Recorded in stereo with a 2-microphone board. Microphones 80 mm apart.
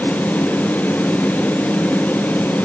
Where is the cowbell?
No cowbell in this recording.